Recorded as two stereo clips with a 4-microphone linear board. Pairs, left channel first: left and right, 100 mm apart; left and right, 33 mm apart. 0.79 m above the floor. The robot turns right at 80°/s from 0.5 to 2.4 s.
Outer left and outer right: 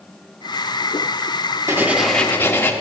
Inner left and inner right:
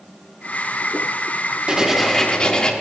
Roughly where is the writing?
Ahead right.